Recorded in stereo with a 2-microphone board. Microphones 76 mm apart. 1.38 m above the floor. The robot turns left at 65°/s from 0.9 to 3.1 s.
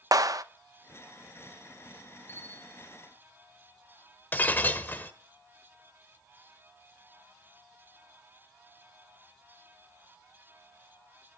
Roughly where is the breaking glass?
Left.